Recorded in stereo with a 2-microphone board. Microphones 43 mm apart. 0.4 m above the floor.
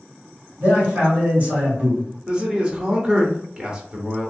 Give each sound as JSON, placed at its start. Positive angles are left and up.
{"t": 0.6, "sound": "a man speaking", "side_deg": -40, "distance_m": 1.9}
{"t": 2.3, "sound": "a man speaking", "side_deg": -20, "distance_m": 0.8}